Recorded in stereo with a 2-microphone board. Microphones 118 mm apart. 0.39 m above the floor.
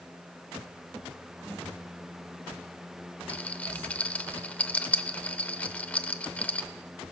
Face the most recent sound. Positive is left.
turn(degrees=15)  # may be behind; listen again after turning